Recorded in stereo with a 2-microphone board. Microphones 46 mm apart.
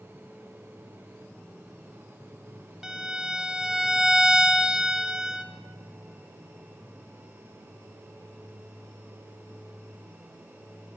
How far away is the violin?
About 0.6 m.